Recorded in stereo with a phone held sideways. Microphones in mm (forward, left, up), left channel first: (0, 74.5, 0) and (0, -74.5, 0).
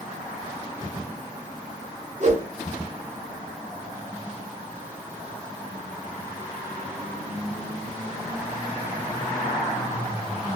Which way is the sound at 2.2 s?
50° right (ahead or behind).